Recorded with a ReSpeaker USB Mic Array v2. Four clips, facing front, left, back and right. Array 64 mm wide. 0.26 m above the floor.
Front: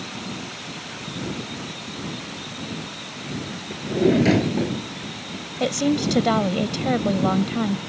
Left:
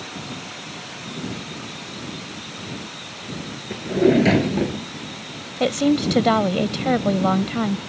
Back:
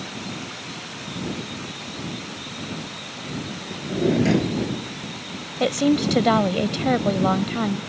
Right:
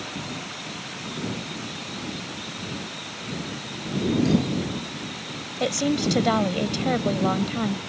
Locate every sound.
3.7 s a drawer: 80° left
5.6 s a woman speaking: 115° left